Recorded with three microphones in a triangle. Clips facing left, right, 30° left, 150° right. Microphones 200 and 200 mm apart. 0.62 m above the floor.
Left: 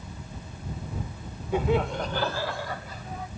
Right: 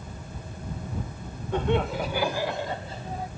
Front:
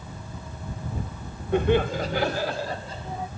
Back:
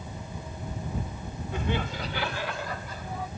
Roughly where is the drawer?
I don't hear a drawer.